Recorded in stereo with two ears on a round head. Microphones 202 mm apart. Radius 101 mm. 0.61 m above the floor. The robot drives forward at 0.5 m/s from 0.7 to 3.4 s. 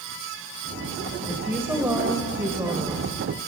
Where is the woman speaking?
10° right (ahead or behind), 3 m; by 3.3 s 15° right (ahead or behind), 1.9 m.